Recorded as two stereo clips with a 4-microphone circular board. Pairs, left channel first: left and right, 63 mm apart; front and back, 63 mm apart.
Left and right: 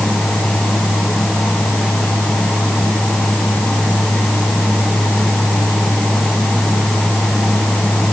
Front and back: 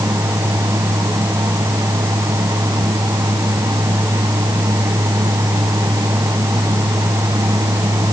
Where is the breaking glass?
No breaking glass in this recording.